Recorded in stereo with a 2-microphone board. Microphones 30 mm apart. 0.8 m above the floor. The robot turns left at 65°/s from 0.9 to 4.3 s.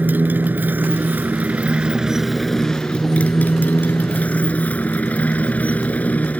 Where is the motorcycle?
85° right; by 6.4 s 55° left.